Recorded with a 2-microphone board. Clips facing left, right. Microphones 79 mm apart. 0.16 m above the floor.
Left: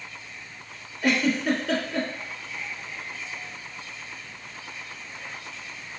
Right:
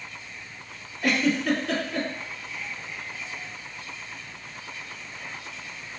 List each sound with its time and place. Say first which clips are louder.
1.0 s a giggle: even; 5° left (ahead or behind), 1.3 m